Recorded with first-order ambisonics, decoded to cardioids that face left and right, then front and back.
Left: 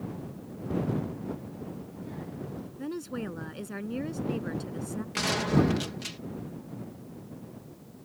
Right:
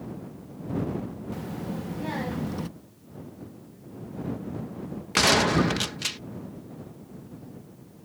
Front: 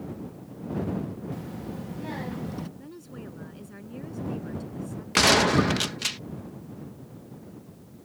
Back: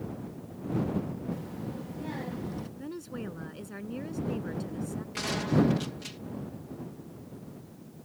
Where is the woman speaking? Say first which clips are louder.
Left 12 dB, back 4 dB; 105° left.